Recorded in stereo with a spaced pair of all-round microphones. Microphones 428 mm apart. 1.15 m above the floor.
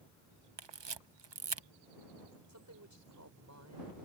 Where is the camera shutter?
75° right (ahead or behind).